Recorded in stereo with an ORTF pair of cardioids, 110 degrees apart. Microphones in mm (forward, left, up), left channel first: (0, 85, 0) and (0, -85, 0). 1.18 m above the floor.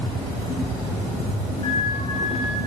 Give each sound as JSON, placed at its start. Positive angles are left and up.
{"t": 1.6, "sound": "a flute", "azimuth_deg": 35, "distance_m": 1.7}